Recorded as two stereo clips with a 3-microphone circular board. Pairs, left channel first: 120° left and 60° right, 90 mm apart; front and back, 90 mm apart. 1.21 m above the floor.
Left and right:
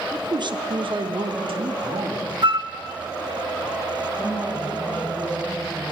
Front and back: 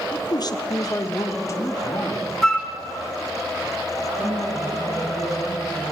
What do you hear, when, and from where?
0.1 s a man speaking: 25° right, 1.0 m; by 2.3 s 55° right, 3.5 m
2.4 s a flute: 85° right, 1.4 m
4.1 s a woman speaking: 145° right, 9.5 m